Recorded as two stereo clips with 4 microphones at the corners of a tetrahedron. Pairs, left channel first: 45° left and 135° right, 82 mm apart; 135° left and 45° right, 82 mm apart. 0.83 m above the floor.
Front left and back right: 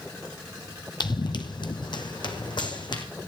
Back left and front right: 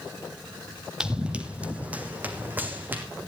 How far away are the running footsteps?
About 1.5 m.